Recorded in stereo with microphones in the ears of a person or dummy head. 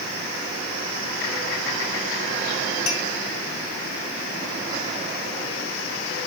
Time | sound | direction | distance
2.9 | a clink | 75° left (ahead or behind) | 1.9 m